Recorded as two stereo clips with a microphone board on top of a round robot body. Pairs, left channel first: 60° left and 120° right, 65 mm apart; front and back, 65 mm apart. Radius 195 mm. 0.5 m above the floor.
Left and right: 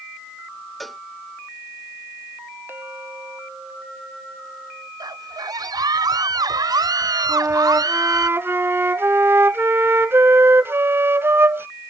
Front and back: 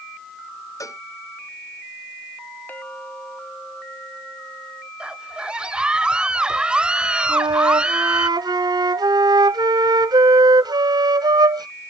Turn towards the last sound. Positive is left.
turn(degrees=-175)